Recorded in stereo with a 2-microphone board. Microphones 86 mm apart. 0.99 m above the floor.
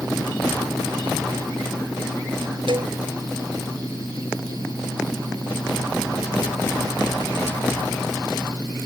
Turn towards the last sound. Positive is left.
turn(degrees=-75)  # may be behind; listen again after turning